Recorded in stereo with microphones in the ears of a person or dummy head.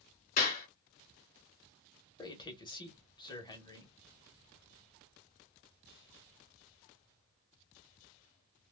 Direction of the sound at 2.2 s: 20° left (ahead or behind).